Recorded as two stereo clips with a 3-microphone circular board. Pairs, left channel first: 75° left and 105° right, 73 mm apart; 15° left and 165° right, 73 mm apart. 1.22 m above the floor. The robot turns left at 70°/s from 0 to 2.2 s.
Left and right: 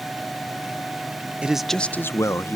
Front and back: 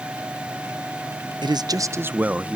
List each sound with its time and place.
1.4 s a man speaking: straight behind, 0.5 m; by 2.6 s 125° left, 0.5 m